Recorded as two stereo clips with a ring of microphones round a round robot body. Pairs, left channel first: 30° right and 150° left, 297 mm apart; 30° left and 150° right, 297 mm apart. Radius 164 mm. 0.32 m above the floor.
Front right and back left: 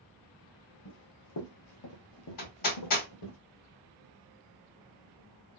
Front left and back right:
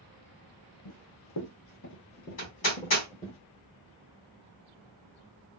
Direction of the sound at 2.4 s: 10° right.